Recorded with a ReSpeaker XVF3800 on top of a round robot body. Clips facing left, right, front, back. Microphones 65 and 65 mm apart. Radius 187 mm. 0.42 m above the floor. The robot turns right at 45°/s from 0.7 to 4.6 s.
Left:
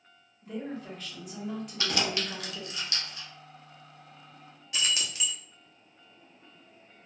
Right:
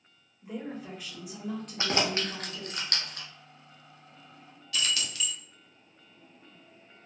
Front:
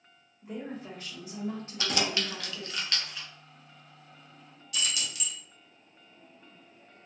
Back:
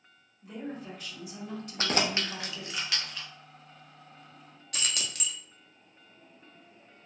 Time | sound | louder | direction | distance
0.4 | a woman speaking | left 1 dB, even | 35° right | 1.4 m
1.8 | keys jangling | right 2 dB, back 2 dB | 145° right | 0.6 m
4.7 | keys jangling | even, front 1 dB | 155° left | 0.7 m